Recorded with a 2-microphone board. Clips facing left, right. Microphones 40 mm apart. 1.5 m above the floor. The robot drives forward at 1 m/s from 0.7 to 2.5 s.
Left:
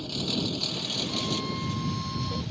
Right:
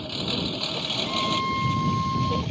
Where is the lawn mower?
30° right (ahead or behind); by 2.5 s 45° right (ahead or behind).